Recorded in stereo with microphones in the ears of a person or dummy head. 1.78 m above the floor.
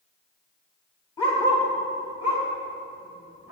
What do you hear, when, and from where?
1.2 s a dog barking: 25° left (ahead or behind), 1.6 m; by 3.5 s 65° left (ahead or behind), 4.5 m